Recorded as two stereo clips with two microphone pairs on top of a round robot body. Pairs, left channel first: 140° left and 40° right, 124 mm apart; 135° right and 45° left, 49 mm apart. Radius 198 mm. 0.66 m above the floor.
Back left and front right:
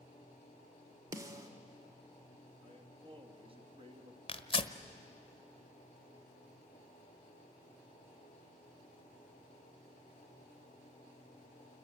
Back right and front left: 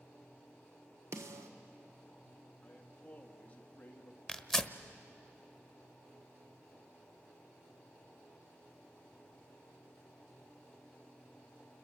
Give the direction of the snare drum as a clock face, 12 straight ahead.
11 o'clock.